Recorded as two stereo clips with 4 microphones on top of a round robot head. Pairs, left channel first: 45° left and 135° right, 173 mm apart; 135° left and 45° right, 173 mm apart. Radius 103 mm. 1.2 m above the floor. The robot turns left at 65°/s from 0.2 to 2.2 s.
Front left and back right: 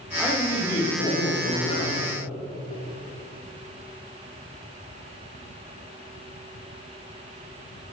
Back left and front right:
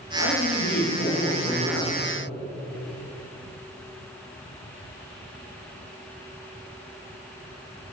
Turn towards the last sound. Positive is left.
turn(degrees=15)